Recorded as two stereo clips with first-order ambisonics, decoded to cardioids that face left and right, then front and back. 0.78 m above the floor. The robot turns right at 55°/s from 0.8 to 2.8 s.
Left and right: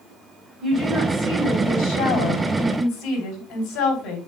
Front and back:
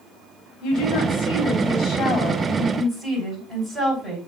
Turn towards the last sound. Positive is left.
turn(degrees=110)